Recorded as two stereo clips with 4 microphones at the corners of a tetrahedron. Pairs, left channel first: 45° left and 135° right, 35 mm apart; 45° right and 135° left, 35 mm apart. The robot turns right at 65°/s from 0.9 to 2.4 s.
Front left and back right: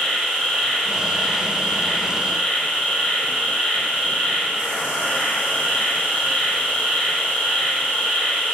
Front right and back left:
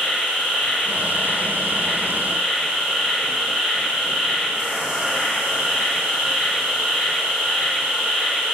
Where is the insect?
30° right, 1.4 m; by 8.6 s 70° left, 1.4 m.